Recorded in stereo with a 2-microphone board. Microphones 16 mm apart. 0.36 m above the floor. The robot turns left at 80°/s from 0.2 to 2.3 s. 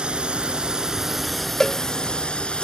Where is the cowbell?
35° left (ahead or behind); by 1.8 s 40° left (ahead or behind).